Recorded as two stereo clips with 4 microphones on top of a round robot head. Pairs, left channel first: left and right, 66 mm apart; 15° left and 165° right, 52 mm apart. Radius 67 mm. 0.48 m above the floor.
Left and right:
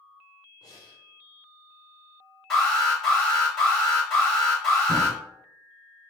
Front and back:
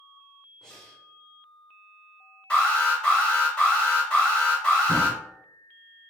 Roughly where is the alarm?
Ahead.